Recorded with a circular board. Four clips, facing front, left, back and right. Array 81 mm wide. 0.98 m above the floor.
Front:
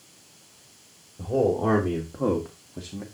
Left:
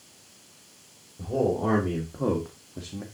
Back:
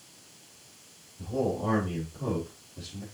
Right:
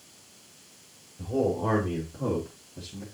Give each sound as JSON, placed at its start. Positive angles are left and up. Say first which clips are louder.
{"t": 1.2, "sound": "a man speaking", "louder": "left 1 dB, front 7 dB", "azimuth_deg": 15, "distance_m": 2.5}